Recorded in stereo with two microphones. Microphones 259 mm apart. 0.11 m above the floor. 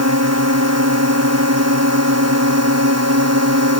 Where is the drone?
75° right (ahead or behind).